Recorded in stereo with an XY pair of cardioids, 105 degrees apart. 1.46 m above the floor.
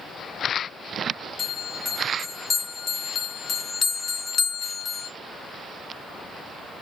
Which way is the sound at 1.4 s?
40° left.